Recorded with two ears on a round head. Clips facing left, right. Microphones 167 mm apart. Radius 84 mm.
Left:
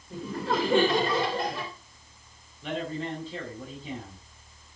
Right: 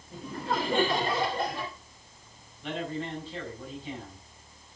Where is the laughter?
60° left (ahead or behind), 3.5 m.